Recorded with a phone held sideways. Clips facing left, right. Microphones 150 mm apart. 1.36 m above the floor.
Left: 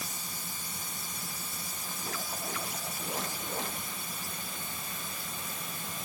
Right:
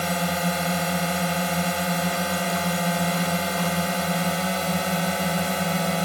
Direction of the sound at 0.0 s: 75° right (ahead or behind).